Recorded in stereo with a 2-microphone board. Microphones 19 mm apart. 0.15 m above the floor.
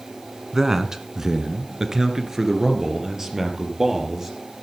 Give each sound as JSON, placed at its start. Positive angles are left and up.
{"t": 0.5, "sound": "a man speaking", "side_deg": -25, "distance_m": 1.3}